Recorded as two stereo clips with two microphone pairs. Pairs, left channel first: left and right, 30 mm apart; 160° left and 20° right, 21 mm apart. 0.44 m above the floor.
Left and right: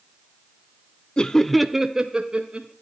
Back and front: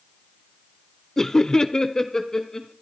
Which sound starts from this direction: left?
Laughter, at 1.2 s.